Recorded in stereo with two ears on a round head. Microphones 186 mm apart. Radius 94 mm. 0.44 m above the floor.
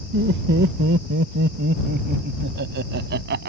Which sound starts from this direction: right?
Laughter, at 0.1 s.